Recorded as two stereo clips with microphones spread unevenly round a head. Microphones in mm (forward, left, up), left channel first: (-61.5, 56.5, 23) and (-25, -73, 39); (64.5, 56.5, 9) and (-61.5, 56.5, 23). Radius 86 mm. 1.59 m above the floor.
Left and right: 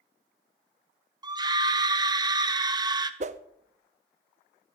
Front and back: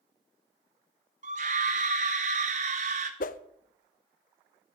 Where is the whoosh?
25° right, 0.6 m.